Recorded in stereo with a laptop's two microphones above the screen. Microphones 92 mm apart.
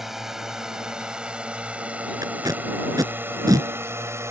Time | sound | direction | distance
0.0 | a drone | 5° right (ahead or behind) | ?
2.2 | tape being pulled | 40° right (ahead or behind) | ?